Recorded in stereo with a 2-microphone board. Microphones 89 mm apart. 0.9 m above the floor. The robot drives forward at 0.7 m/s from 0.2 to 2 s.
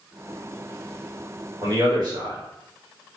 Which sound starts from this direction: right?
A man speaking, at 1.6 s.